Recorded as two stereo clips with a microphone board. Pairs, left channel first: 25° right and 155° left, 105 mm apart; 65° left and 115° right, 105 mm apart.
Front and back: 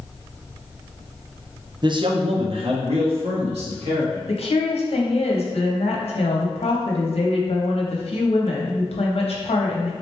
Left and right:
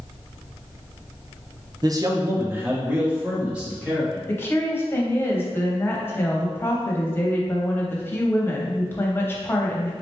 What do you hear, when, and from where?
1.8 s a man speaking: 160° right, 0.5 m; by 4.2 s 165° left, 1.9 m
4.3 s a woman speaking: straight ahead, 0.8 m